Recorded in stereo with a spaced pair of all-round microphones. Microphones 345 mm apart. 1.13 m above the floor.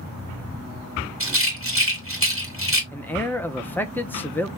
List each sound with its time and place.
1.2 s a rattle: 40° right (ahead or behind), 1.8 m
2.9 s a man speaking: 5° left (ahead or behind), 0.7 m